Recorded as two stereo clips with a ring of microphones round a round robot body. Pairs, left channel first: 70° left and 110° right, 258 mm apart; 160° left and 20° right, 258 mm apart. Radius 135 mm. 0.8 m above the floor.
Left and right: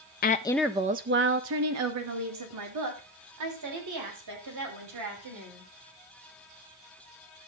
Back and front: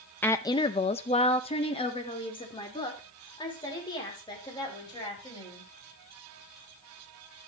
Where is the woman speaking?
80° left, 0.7 m; by 5.7 s 130° right, 5 m.